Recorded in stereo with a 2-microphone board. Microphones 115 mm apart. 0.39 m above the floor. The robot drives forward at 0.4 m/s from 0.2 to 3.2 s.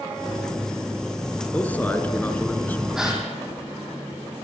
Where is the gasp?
5° right (ahead or behind), 7 m.